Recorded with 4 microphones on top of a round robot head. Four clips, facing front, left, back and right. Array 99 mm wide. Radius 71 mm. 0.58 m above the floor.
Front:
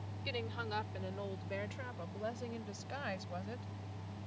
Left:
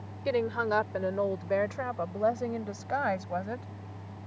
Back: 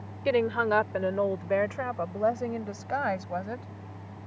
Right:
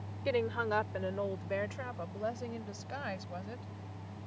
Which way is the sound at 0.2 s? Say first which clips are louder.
Left 4 dB, back 18 dB; 165° left.